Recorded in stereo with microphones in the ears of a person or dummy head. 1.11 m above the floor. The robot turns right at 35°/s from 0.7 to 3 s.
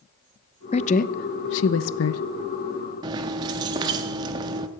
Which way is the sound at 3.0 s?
25° right (ahead or behind).